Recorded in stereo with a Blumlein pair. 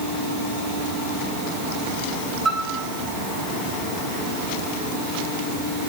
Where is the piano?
15° right, 5.5 m.